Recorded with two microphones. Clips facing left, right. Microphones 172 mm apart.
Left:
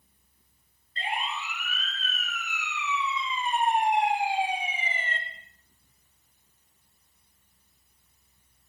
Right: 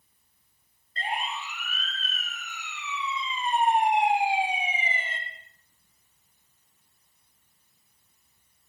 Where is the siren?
45° right (ahead or behind), 6 m; by 5.2 s 5° right (ahead or behind), 3.5 m.